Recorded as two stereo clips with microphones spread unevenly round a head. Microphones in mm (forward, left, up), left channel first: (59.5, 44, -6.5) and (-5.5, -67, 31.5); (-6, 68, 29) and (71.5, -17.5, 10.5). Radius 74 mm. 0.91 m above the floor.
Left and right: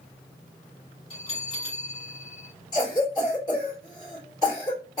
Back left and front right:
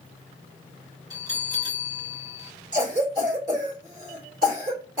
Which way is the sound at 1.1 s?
10° left.